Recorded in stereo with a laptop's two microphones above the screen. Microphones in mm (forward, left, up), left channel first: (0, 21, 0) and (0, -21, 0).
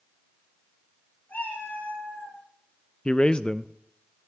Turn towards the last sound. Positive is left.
turn(degrees=25)  # may be behind; listen again after turning